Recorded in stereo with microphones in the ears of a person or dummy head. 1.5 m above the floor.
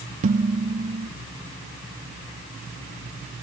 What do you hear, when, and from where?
0.2 s dishes clattering: 40° right (ahead or behind), 1.1 m